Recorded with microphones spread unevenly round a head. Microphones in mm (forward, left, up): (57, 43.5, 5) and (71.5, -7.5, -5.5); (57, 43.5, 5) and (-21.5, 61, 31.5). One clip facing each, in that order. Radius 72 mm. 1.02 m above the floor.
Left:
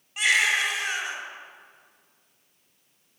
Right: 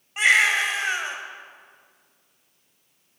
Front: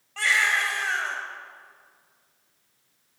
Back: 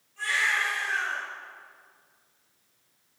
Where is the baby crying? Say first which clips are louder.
Right 4 dB, front 4 dB; 15° right, 3 m.